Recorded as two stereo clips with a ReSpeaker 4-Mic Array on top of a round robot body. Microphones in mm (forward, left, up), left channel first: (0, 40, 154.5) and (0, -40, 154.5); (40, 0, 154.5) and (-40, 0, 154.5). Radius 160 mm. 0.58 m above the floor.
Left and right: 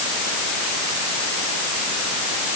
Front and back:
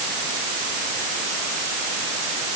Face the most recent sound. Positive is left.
No sound to turn to.